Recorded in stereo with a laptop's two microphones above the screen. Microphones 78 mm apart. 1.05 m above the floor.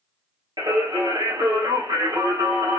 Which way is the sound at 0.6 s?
65° right (ahead or behind).